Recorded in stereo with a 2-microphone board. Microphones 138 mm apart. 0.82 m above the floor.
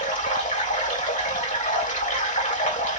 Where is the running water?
75° left (ahead or behind), 2.5 m.